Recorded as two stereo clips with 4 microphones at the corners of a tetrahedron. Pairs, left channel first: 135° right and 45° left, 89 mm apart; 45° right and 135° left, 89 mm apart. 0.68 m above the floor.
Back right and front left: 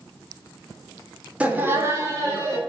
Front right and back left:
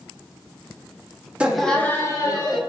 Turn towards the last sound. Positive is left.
turn(degrees=-10)